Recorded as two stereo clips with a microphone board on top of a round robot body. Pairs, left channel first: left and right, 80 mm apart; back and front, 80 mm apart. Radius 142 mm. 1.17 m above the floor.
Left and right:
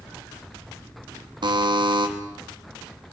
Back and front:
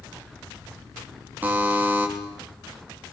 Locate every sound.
1.4 s a buzzer: 65° right, 3.5 m